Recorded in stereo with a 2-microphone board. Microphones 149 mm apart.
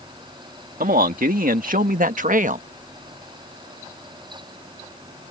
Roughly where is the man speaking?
Right.